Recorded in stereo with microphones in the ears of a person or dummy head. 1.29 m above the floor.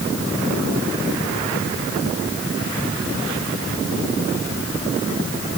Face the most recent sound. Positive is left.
No sound to turn to.